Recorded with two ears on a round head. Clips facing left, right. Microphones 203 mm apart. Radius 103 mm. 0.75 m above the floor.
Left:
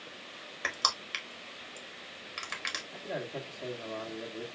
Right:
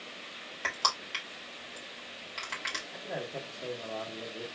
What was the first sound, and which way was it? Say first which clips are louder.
Crushing: right 2 dB; 20° left (ahead or behind).